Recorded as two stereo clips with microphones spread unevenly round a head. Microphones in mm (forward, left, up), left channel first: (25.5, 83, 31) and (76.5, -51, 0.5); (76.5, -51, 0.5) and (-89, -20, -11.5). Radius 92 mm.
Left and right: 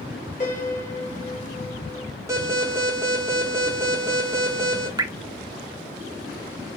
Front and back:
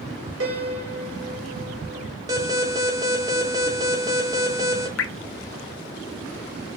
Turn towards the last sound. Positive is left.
turn(degrees=-5)